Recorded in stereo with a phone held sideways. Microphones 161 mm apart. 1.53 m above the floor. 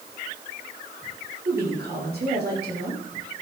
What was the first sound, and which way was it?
A woman speaking, 80° right.